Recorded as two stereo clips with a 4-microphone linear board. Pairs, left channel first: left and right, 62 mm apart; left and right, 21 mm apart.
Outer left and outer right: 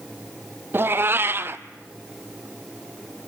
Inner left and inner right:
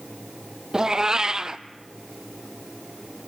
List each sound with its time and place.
0.7 s a cat meowing: 35° right (ahead or behind), 0.6 m